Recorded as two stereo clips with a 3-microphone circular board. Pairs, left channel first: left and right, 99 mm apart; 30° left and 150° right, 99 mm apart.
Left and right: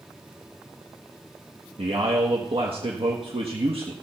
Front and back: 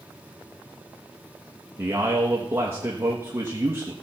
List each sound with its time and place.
1.8 s a man speaking: 85° right, 1.3 m